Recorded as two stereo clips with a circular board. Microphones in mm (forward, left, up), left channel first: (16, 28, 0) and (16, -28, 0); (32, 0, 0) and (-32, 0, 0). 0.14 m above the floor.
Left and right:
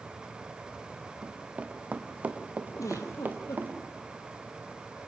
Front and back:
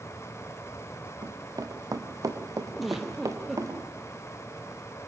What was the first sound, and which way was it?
Running footsteps, 160° right.